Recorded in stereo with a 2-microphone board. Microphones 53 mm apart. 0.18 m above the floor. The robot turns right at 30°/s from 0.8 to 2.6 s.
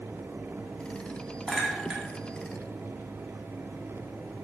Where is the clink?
5° right (ahead or behind), 0.6 m; by 2.0 s 10° right (ahead or behind), 0.6 m.